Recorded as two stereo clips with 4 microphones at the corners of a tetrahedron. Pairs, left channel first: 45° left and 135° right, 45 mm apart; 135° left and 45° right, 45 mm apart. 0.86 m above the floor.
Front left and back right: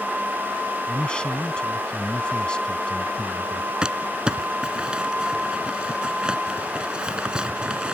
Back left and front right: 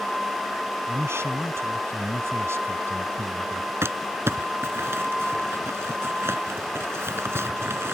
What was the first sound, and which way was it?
A man speaking, 25° right.